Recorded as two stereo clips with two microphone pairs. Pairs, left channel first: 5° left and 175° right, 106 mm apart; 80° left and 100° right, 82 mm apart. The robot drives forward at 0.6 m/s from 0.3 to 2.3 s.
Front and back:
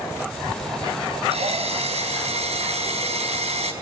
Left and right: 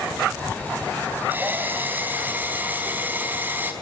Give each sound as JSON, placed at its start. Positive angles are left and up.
{"t": 1.3, "sound": "a drill", "azimuth_deg": -170, "distance_m": 4.0}